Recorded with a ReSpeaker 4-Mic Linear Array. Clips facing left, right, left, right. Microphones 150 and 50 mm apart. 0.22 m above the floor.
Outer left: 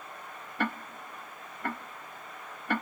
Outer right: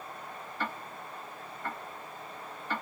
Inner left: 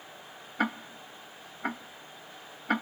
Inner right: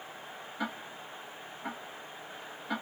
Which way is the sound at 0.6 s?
60° left (ahead or behind).